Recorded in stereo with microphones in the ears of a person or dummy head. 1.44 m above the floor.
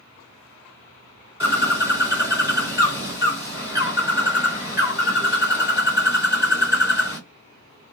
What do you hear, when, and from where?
1.4 s a bird: 15° right (ahead or behind), 1.6 m